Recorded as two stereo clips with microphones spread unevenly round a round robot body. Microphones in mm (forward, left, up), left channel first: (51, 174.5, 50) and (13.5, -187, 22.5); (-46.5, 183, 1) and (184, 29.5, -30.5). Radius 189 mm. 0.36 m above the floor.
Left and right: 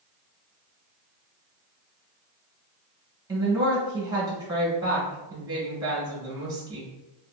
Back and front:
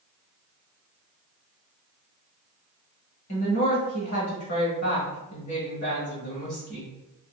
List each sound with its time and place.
3.3 s a woman speaking: 170° right, 1.4 m